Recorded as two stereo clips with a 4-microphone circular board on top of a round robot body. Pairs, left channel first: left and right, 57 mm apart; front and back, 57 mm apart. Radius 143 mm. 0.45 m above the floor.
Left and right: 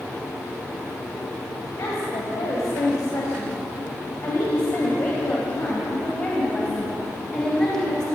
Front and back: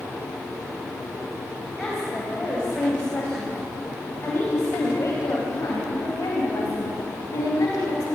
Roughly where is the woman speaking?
Left.